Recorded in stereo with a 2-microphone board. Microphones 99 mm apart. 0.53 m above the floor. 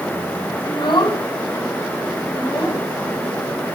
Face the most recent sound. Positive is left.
turn(degrees=50)  # may be behind; listen again after turning